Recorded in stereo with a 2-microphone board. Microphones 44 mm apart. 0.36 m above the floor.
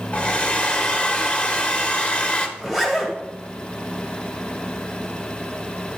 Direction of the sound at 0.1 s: 25° left (ahead or behind).